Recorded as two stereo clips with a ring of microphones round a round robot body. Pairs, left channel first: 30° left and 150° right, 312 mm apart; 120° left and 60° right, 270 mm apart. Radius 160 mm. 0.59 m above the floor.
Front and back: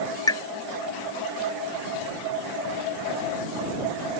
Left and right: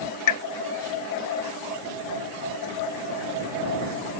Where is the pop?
110° left.